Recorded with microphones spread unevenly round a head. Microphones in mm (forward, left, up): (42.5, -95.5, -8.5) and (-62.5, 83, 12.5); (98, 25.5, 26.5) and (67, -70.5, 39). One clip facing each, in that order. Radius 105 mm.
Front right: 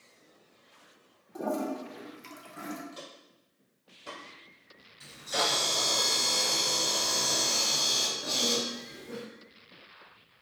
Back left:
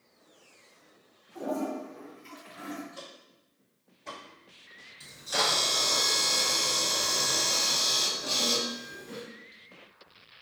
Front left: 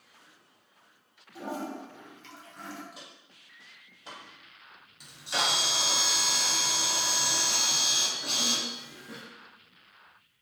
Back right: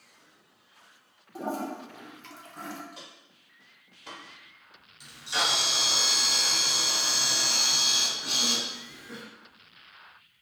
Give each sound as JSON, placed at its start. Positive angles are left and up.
{"t": 1.4, "sound": "a toilet flushing", "azimuth_deg": -65, "distance_m": 0.5}
{"t": 2.9, "sound": "footsteps", "azimuth_deg": -15, "distance_m": 1.8}
{"t": 5.0, "sound": "a camera shutter", "azimuth_deg": 35, "distance_m": 1.0}